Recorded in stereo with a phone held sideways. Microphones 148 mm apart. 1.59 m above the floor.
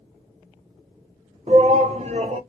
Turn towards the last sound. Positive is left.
turn(degrees=-45)  # may be behind; listen again after turning